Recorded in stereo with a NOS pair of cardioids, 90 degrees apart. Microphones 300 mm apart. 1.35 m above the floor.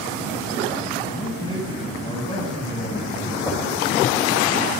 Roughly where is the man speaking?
Ahead.